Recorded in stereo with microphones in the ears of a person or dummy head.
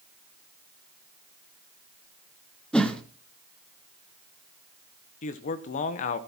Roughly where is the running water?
I don't hear running water.